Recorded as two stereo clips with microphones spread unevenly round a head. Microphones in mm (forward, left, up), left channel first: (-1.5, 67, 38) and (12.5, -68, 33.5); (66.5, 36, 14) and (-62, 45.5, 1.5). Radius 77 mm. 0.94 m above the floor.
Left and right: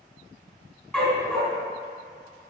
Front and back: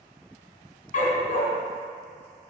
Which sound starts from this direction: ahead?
A dog barking, at 0.9 s.